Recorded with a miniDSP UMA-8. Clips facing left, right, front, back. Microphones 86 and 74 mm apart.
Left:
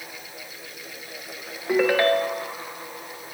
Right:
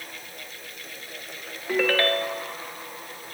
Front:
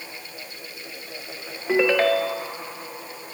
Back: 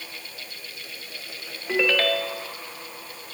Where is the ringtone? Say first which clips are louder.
Left 4 dB, front 4 dB; 35° left, 1.1 m.